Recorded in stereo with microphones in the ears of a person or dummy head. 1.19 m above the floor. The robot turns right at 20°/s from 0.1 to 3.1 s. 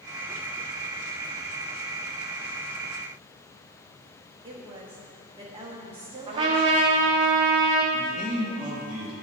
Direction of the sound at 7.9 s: 25° right (ahead or behind).